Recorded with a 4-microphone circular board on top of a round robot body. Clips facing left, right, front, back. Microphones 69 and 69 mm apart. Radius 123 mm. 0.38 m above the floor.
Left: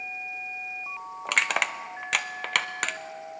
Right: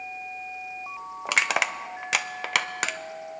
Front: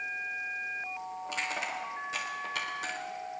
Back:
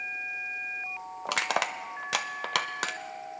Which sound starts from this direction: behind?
Crushing, at 1.2 s.